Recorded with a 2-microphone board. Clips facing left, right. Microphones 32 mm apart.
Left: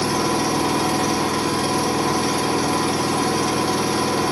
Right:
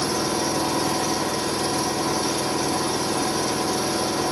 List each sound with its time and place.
0.0 s an engine running: 60° left (ahead or behind), 0.7 m